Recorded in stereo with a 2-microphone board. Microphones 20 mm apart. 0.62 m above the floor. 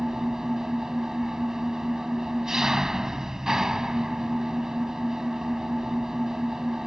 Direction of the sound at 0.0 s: 25° right (ahead or behind).